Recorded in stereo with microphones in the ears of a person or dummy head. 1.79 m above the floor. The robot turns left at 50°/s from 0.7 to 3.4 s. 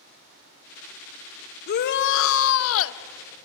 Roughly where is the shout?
Behind left.